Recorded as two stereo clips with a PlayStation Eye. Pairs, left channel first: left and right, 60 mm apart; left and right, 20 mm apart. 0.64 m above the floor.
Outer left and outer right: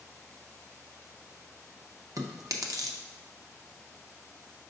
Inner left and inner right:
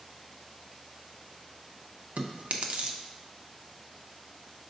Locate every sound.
2.2 s chewing: 75° right (ahead or behind), 0.5 m